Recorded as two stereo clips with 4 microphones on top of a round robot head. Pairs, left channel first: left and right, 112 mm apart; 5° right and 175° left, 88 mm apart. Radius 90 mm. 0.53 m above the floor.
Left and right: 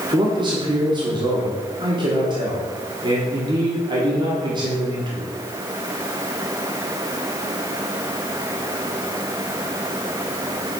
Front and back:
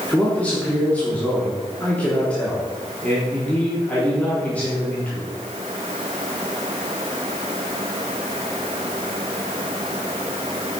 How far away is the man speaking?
About 1.3 m.